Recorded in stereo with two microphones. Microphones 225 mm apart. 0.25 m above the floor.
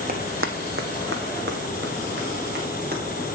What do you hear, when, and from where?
0.1 s running footsteps: 40° right (ahead or behind), 0.9 m